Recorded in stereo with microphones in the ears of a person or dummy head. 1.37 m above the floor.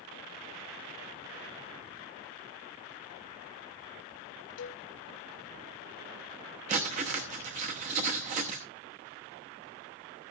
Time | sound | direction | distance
4.6 | a cowbell | 70° left (ahead or behind) | 1.5 m
6.7 | writing | 35° right (ahead or behind) | 1.0 m